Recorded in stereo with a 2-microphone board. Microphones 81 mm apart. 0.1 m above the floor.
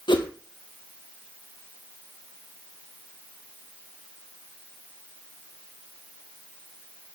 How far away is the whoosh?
About 1.4 m.